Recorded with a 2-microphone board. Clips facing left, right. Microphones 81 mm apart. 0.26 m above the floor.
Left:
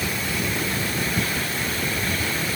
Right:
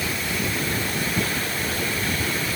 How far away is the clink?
I don't hear a clink.